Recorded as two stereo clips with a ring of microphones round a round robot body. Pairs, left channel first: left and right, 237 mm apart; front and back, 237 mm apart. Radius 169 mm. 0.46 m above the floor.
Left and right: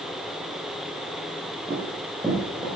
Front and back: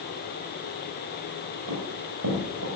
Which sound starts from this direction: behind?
Running footsteps, at 1.7 s.